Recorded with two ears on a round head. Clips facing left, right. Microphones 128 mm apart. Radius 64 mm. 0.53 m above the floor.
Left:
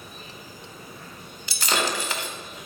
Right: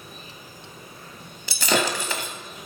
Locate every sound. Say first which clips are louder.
0.0 s an insect: left 1 dB; 75° left (ahead or behind), 8.5 m
1.5 s breaking glass: right 3 dB; 90° right, 1.3 m